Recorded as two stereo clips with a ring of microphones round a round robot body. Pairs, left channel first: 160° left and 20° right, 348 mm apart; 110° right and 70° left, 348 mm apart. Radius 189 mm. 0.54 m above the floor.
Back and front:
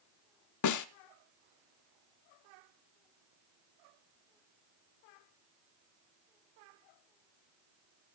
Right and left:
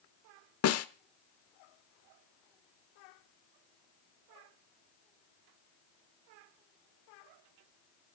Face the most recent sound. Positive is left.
turn(degrees=-160)